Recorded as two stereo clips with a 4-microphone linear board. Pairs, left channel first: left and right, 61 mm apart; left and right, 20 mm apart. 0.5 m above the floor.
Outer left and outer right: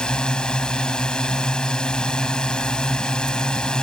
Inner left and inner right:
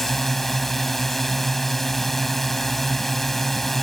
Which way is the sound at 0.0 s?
15° left (ahead or behind).